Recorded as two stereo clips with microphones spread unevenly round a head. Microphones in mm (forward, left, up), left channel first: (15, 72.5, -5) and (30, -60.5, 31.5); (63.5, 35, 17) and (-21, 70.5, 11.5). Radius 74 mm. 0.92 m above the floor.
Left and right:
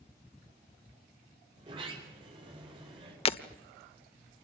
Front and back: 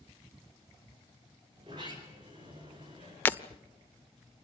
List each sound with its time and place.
1.6 s a sliding door: 145° right, 4.5 m
3.2 s breaking glass: 45° left, 1.0 m